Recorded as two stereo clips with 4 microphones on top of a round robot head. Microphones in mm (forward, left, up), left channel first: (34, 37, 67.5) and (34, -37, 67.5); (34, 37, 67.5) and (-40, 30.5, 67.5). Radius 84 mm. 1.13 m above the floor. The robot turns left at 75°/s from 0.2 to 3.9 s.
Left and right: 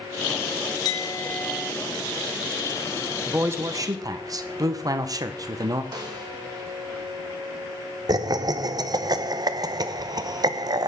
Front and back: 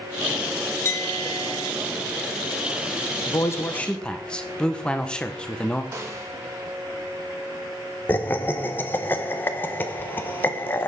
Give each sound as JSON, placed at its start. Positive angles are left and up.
{"t": 0.8, "sound": "a clink", "azimuth_deg": 60, "distance_m": 0.9}
{"t": 3.3, "sound": "a man speaking", "azimuth_deg": -25, "distance_m": 1.1}
{"t": 5.9, "sound": "a snare drum", "azimuth_deg": -125, "distance_m": 1.7}
{"t": 8.1, "sound": "laughter", "azimuth_deg": -60, "distance_m": 0.9}